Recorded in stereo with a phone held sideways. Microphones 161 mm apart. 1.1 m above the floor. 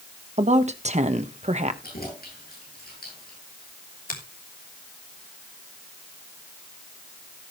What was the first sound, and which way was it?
A woman speaking, 45° right (ahead or behind).